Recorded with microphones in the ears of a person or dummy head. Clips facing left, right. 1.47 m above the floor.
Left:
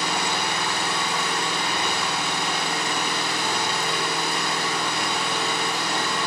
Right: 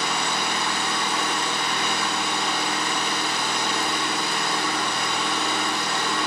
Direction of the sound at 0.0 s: 15° left (ahead or behind).